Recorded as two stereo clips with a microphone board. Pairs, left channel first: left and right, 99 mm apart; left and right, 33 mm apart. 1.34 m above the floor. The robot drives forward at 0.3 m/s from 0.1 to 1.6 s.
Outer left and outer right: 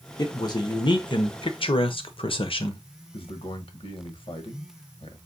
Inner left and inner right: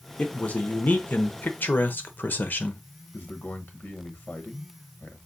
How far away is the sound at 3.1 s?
About 1.0 m.